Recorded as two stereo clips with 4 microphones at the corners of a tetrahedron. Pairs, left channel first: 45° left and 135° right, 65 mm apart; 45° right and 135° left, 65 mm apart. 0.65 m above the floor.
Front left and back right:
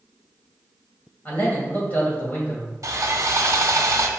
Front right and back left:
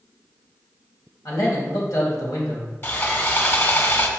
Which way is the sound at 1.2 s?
20° right.